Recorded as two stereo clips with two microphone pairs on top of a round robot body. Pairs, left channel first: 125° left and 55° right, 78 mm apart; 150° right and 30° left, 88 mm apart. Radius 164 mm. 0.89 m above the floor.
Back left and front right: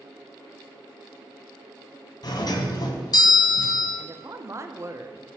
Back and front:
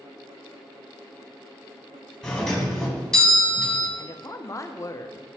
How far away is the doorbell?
About 1.9 m.